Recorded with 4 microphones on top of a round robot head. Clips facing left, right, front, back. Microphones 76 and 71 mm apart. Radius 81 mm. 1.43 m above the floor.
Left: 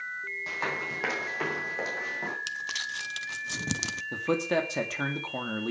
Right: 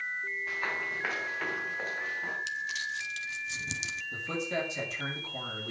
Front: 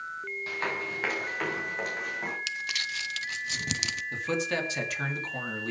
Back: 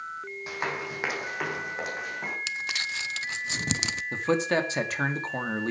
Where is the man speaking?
130° left, 2.5 m.